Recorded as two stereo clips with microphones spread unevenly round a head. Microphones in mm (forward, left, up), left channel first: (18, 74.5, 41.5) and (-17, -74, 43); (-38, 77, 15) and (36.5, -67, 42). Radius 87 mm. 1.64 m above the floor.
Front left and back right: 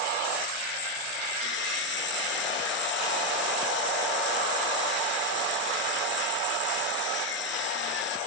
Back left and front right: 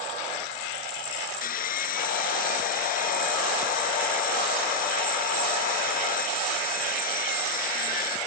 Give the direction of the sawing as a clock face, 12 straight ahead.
9 o'clock.